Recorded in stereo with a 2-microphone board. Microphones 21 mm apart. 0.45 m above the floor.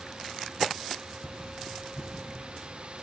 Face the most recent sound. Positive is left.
turn(degrees=5)  # may be behind; listen again after turning